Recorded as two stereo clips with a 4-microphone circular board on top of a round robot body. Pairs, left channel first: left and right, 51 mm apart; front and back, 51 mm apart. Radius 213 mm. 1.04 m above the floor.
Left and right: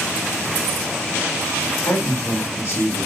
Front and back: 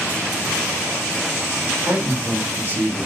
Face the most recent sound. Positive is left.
turn(degrees=125)